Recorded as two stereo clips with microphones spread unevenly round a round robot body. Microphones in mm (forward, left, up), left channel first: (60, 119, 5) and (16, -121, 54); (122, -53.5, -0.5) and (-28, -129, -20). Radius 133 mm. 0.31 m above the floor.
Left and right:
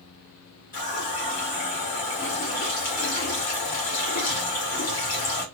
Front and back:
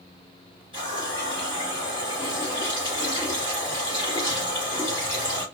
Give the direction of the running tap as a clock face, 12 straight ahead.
7 o'clock.